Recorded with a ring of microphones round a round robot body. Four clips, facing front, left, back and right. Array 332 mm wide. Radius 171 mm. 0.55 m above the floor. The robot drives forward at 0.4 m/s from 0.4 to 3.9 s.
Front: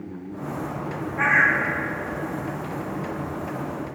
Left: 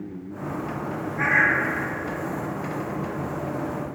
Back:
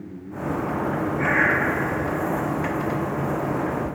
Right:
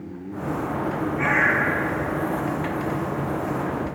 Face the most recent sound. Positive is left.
turn(degrees=105)